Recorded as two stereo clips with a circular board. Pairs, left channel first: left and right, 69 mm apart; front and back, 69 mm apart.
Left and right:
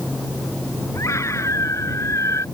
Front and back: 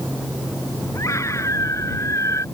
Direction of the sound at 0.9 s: 45° left.